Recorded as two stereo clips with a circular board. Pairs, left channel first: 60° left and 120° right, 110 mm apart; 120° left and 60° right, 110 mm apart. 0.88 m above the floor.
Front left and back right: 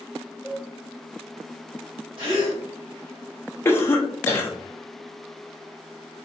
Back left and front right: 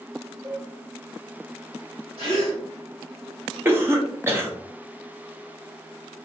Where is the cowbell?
30° right, 1.5 m.